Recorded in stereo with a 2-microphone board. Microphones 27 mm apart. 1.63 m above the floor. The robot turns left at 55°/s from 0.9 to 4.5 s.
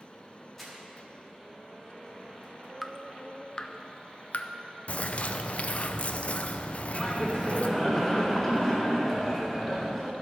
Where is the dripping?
Centre (ahead or behind), 0.5 m; by 4.5 s 50° left (ahead or behind), 0.5 m.